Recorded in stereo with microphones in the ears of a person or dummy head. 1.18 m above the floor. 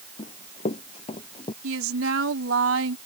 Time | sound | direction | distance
0.2 | running footsteps | 40° left (ahead or behind) | ?
1.6 | a woman speaking | 70° right (ahead or behind) | ?